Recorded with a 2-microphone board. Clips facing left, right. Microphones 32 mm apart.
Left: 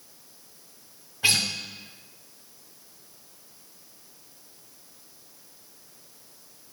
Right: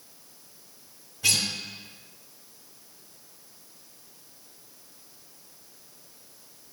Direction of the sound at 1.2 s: 30° left (ahead or behind).